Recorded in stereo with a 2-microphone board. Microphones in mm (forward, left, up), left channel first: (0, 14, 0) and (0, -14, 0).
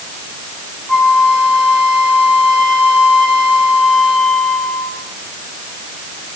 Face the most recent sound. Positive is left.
turn(degrees=30)  # may be behind; listen again after turning